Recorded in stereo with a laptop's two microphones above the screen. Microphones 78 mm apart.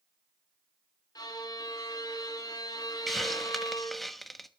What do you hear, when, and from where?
1.1 s a violin: 55° left (ahead or behind), 1.9 m
3.1 s a hiss: centre (ahead or behind), 1.1 m